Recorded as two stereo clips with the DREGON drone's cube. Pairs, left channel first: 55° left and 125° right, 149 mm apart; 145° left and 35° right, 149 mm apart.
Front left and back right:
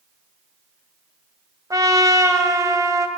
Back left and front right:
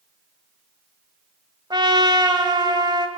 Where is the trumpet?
70° right, 1.6 m.